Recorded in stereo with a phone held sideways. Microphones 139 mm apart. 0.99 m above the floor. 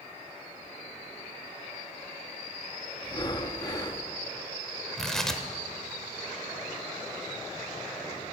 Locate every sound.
3.0 s breathing: 30° left (ahead or behind), 0.7 m
5.0 s tearing paper: 5° left (ahead or behind), 0.8 m